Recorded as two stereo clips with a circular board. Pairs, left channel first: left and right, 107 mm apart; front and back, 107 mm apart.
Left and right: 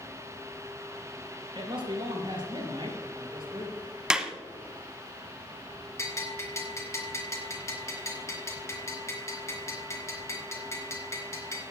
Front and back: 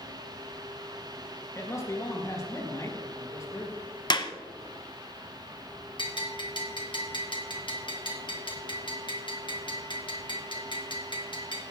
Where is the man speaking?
55° right, 5 m.